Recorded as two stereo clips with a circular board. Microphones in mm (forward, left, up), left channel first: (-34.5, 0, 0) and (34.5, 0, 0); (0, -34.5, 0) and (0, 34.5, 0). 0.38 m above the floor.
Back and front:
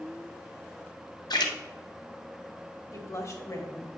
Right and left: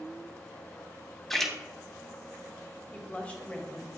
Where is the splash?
175° right, 0.9 m.